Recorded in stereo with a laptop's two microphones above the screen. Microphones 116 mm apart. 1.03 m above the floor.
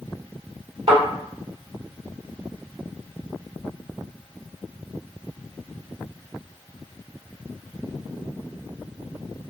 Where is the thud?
60° right (ahead or behind), 1.5 m.